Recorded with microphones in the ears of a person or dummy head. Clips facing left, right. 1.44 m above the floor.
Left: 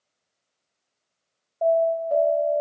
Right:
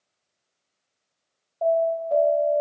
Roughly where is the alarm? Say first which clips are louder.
Left 1 dB; centre.